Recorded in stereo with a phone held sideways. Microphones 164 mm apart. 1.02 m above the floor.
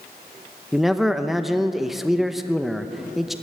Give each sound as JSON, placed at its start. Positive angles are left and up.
{"t": 0.7, "sound": "a man speaking", "side_deg": 0, "distance_m": 0.8}